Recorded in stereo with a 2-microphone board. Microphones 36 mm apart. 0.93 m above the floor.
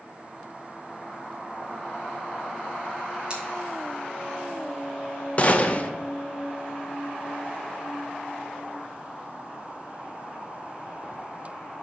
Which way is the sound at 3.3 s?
30° right (ahead or behind).